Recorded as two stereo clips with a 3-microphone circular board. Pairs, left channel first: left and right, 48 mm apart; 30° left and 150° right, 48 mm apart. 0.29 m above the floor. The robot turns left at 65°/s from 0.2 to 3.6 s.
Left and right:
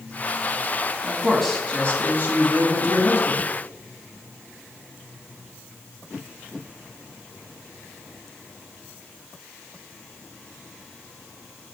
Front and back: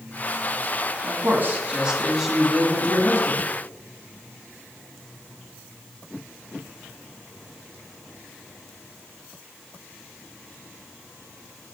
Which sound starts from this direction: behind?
A man speaking, at 1.0 s.